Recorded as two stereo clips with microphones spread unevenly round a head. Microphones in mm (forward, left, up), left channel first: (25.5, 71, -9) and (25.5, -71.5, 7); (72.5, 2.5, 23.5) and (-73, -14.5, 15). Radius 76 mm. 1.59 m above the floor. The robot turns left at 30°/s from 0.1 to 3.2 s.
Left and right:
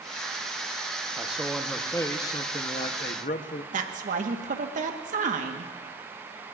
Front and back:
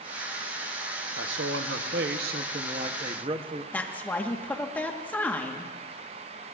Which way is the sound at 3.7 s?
70° right.